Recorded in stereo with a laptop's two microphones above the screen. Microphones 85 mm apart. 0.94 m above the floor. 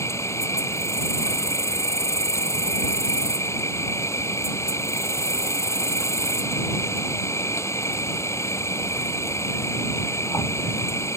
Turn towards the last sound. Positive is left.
turn(degrees=35)  # may be behind; listen again after turning